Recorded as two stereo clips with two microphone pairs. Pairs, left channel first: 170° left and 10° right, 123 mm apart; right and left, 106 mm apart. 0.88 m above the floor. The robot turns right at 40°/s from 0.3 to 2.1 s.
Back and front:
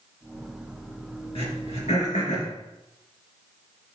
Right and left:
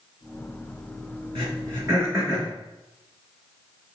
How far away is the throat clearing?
About 4 m.